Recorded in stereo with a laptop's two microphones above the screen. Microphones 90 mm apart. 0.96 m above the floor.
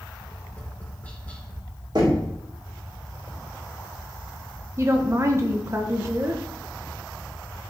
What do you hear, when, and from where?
0.3 s tapping: 15° left (ahead or behind), 1.2 m
1.9 s knocking: 50° right (ahead or behind), 2.5 m
4.8 s a woman speaking: 35° right (ahead or behind), 0.9 m